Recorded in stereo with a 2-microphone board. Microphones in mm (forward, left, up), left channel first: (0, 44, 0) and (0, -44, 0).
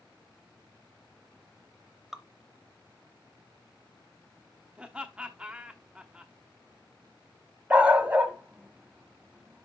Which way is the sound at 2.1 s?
5° right (ahead or behind).